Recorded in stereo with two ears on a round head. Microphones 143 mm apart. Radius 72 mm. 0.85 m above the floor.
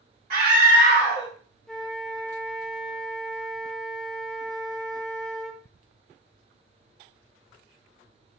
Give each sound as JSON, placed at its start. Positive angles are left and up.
{"t": 0.3, "sound": "a scream", "side_deg": -40, "distance_m": 0.9}
{"t": 1.7, "sound": "a flute", "side_deg": 5, "distance_m": 0.5}